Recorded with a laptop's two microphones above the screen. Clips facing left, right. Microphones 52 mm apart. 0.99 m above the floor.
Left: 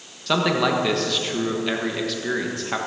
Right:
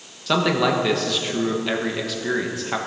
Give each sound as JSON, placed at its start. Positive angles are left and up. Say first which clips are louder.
{"t": 0.3, "sound": "a man speaking", "louder": "right 1 dB", "side_deg": 0, "distance_m": 1.1}